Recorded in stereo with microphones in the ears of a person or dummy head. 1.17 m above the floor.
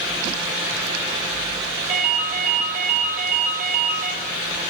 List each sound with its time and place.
1.9 s a ringtone: 45° right (ahead or behind), 1.3 m